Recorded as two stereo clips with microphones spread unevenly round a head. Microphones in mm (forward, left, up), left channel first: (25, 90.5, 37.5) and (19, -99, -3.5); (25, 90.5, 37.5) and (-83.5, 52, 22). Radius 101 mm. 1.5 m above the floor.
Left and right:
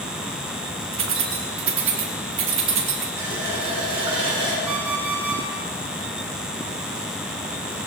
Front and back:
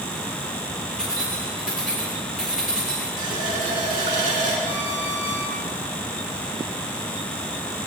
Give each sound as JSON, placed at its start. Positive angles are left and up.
{"t": 0.9, "sound": "keys jangling", "azimuth_deg": -70, "distance_m": 2.0}
{"t": 3.2, "sound": "a running tap", "azimuth_deg": -160, "distance_m": 3.0}
{"t": 4.7, "sound": "an alarm clock", "azimuth_deg": -100, "distance_m": 3.0}